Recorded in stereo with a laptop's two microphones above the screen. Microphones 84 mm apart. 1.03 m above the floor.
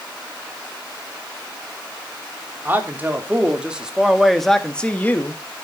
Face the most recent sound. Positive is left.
turn(degrees=35)  # may be behind; listen again after turning